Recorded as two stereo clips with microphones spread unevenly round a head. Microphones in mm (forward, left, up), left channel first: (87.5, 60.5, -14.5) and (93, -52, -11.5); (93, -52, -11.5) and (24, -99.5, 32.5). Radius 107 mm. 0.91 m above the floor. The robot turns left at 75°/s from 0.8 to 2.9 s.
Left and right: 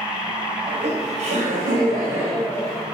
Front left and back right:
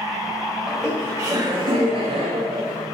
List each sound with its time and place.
0.7 s laughter: 60° right, 5 m; by 2.8 s 150° left, 5 m